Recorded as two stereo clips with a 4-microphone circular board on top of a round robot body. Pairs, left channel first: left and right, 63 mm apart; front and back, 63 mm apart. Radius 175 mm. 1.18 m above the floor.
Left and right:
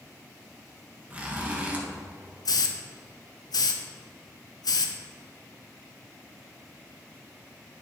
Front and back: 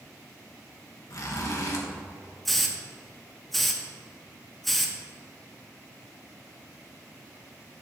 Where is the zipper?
25° right, 1.7 m.